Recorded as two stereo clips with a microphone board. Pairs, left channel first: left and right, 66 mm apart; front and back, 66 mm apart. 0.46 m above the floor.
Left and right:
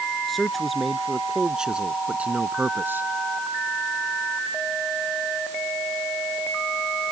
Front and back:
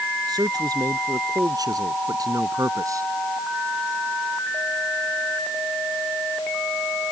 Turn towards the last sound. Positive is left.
turn(degrees=-145)